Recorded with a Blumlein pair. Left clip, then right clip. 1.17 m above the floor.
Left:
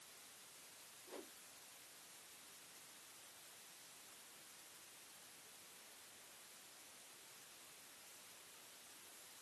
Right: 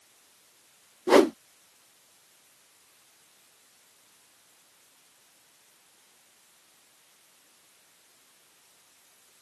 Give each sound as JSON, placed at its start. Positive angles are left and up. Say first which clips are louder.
{"t": 1.1, "sound": "a whoosh", "louder": "right 37 dB", "azimuth_deg": -45}